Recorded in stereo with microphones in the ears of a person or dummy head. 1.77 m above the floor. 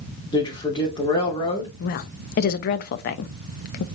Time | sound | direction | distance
0.3 | a man speaking | 15° left (ahead or behind) | 1.9 m
1.8 | a woman speaking | 45° left (ahead or behind) | 0.6 m